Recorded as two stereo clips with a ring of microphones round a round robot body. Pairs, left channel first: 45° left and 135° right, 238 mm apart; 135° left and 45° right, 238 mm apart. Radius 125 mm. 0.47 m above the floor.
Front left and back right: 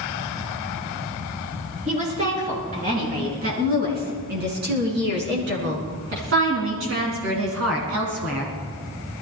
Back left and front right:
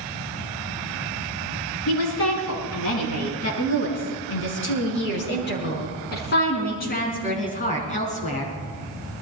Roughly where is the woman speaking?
Behind.